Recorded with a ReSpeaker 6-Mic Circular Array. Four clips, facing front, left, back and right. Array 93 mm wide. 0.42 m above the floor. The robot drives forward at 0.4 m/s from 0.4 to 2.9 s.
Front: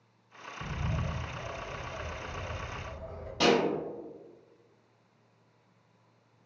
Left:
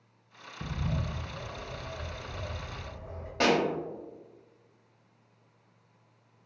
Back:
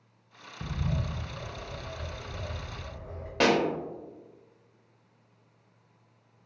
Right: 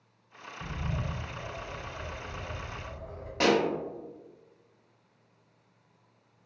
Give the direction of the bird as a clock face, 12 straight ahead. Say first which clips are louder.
Left 1 dB, back 3 dB; 7 o'clock.